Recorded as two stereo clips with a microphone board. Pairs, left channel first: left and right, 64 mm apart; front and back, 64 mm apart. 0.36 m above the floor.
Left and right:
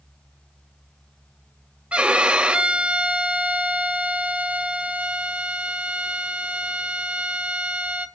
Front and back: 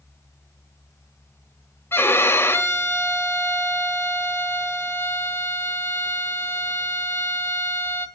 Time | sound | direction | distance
1.9 | a violin | 25° right | 1.3 m